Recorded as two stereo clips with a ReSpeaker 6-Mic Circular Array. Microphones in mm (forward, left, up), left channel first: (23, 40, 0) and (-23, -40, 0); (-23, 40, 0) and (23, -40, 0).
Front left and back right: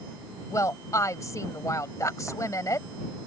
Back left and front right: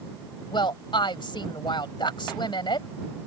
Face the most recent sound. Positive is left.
turn(degrees=110)